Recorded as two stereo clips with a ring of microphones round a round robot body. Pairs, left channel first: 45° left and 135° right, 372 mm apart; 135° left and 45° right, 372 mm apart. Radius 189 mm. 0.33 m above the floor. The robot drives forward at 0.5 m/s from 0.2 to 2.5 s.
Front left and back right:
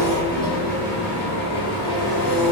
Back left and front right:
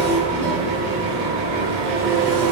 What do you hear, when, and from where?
0.0 s an engine running: 20° right, 2.0 m; by 2.5 s 45° right, 1.0 m